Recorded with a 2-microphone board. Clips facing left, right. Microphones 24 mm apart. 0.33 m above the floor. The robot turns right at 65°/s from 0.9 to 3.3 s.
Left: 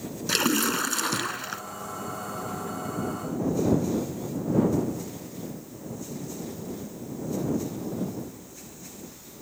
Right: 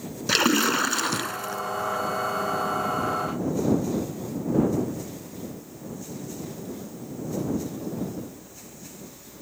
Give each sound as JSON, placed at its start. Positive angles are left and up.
{"t": 0.3, "sound": "a splash", "azimuth_deg": -15}